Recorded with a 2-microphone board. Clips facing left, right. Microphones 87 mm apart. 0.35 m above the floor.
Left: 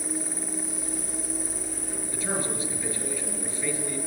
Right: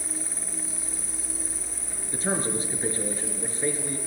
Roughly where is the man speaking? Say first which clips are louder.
Right 4 dB; right.